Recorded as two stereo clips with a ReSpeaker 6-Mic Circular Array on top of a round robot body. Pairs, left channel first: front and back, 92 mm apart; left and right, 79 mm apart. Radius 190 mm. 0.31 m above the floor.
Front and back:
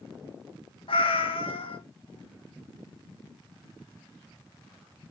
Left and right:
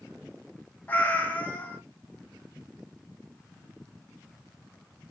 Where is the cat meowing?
20° left, 0.8 m.